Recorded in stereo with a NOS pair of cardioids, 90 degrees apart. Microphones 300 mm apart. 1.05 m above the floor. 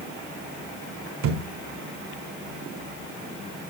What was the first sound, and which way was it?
A thud, 65° right.